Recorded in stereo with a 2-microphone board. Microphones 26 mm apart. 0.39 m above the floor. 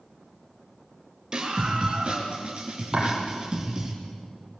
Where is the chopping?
25° right (ahead or behind), 8 m.